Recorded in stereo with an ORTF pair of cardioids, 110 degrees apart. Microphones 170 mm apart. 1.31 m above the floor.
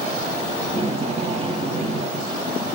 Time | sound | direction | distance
0.6 | tape being pulled | 40° right | 2.0 m